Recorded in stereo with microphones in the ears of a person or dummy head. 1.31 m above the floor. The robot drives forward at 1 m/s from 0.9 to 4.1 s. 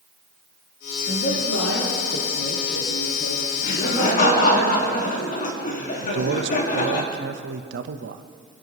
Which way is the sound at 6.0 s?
65° right (ahead or behind).